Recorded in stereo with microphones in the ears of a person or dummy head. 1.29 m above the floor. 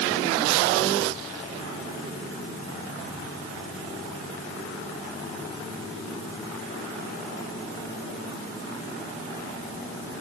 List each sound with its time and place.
Only background noise.